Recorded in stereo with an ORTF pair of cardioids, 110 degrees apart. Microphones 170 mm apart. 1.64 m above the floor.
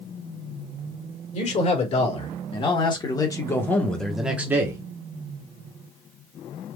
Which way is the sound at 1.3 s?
45° left.